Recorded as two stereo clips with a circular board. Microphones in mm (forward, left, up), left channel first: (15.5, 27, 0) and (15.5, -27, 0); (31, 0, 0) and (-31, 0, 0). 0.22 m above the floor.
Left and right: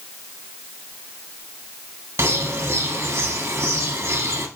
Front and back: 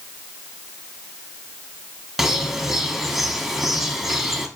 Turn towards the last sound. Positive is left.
turn(degrees=-95)